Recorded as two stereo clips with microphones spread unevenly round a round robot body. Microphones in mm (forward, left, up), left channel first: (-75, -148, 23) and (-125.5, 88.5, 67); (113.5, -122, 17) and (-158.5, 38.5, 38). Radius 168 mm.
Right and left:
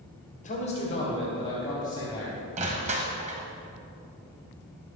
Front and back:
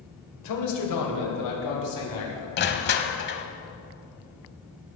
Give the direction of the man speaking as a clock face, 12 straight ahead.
1 o'clock.